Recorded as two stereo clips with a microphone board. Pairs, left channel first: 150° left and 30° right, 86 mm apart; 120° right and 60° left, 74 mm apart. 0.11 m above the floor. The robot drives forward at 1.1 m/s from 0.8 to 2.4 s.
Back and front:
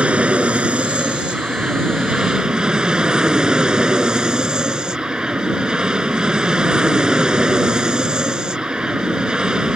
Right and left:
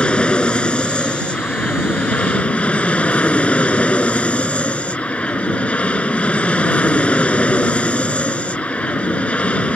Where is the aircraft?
75° right; by 9.8 s 90° right.